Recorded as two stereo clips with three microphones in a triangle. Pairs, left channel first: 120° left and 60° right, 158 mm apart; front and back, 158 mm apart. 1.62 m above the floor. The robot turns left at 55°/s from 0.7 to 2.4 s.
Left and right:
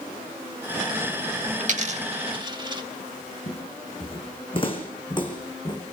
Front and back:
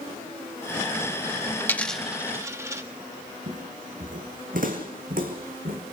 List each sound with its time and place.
1.6 s a dropped coin: 70° right, 1.5 m; by 2.8 s 110° right, 1.5 m
3.5 s footsteps: 160° left, 3.5 m; by 5.8 s straight behind, 4.5 m